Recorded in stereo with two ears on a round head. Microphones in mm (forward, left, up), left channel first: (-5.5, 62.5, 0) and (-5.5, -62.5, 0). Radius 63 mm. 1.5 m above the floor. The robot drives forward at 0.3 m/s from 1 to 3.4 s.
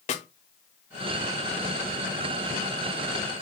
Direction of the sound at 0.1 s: 50° left (ahead or behind).